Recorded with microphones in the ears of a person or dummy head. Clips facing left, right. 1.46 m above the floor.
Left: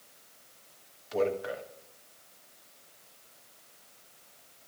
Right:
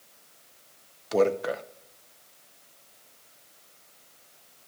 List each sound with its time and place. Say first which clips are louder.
1.1 s a man speaking: right 6 dB; 60° right (ahead or behind), 0.7 m